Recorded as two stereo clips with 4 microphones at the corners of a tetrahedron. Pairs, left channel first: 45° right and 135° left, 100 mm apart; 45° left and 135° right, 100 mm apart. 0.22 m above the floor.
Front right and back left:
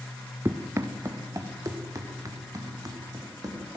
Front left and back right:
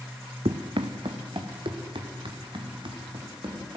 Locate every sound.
0.5 s running footsteps: 160° right, 1.0 m; by 3.8 s 175° right, 4 m